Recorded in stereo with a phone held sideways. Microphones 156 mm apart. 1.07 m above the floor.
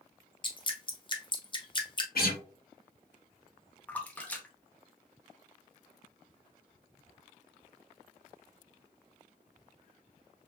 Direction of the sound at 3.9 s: 10° left (ahead or behind).